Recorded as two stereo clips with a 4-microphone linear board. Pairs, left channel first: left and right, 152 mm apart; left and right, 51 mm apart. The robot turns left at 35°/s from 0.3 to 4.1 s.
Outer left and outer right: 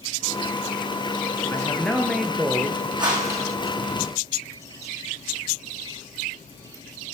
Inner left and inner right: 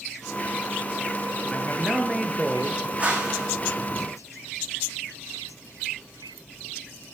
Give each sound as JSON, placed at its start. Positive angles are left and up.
{"t": 1.5, "sound": "a man speaking", "azimuth_deg": 20, "distance_m": 2.0}
{"t": 3.0, "sound": "a whoosh", "side_deg": -30, "distance_m": 5.0}